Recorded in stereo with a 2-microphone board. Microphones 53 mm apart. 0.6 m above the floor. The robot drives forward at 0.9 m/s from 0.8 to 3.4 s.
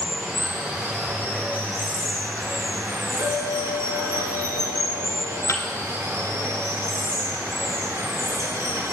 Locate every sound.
0.0 s running water: 45° right (ahead or behind), 4 m; by 8.9 s 75° right (ahead or behind), 3 m
3.2 s a clink: 45° right (ahead or behind), 4.5 m
5.5 s a thud: 60° left (ahead or behind), 1.5 m